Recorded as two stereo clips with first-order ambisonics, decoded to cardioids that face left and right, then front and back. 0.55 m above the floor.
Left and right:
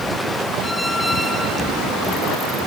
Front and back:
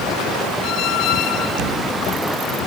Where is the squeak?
Straight ahead, 0.6 m.